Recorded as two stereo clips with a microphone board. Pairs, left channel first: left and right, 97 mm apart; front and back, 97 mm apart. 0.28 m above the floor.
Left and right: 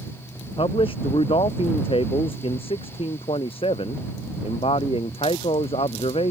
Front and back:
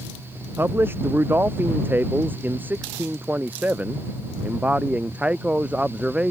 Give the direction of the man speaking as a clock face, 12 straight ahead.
8 o'clock.